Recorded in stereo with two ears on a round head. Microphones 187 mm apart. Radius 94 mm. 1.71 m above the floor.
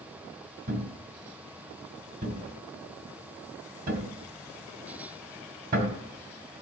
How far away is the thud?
About 2.5 m.